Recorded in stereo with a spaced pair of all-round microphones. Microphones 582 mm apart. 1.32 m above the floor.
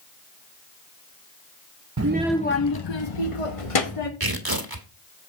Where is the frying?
I don't hear frying.